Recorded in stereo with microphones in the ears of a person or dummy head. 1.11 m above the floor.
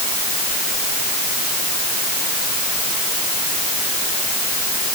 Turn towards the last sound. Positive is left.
No sound to turn to.